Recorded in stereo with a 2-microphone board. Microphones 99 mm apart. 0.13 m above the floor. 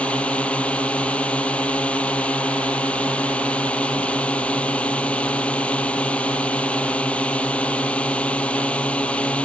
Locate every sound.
0.0 s a drone: 15° left (ahead or behind)